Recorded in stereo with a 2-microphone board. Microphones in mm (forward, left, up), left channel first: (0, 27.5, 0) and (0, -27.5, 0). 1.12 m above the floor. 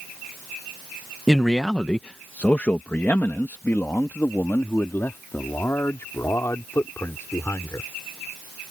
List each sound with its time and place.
1.3 s a man speaking: centre (ahead or behind); by 7.9 s 55° left (ahead or behind)